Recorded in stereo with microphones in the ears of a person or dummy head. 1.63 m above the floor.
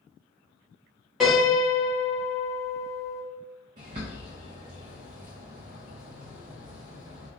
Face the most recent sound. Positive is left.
turn(degrees=-25)  # may be behind; listen again after turning